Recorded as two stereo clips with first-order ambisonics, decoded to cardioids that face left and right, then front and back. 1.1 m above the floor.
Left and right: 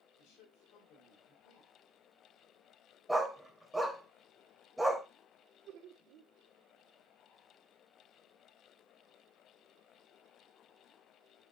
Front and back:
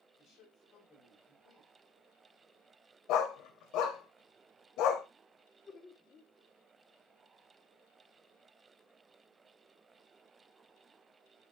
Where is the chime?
No chime in this recording.